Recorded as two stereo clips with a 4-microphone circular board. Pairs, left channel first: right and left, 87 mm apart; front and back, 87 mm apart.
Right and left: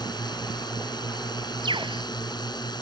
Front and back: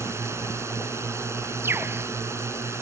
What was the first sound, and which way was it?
A drone, 120° right.